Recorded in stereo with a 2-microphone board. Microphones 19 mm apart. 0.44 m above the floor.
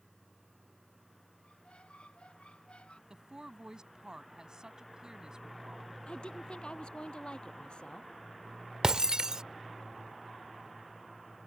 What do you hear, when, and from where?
1.4 s a squeak: 85° left
3.1 s a woman speaking: 40° right (ahead or behind)
6.1 s a woman speaking: 60° left (ahead or behind)
8.8 s breaking glass: 40° right (ahead or behind)